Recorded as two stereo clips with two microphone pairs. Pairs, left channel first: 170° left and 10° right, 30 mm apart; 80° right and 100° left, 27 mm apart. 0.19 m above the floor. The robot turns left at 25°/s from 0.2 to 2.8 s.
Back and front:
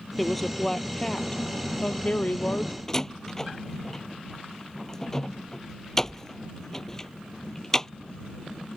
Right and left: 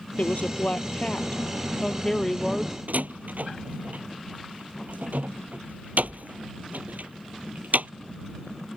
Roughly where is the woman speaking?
Right.